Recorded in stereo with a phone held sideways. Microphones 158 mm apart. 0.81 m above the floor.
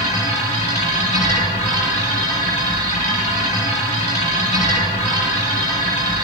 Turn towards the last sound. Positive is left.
turn(degrees=50)  # may be behind; listen again after turning